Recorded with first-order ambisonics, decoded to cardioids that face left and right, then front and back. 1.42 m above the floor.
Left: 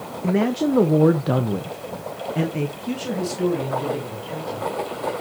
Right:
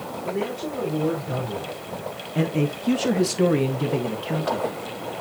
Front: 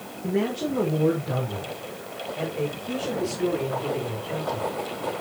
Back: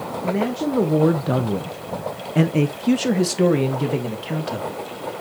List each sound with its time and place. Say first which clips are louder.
0.2 s a man speaking: left 7 dB, back 2 dB; 100° left, 1.8 m; by 4.8 s 140° right, 3 m